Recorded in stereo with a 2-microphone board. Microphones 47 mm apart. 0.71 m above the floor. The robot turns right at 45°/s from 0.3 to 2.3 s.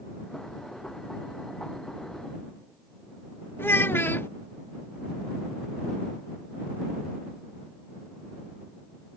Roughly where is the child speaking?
Left.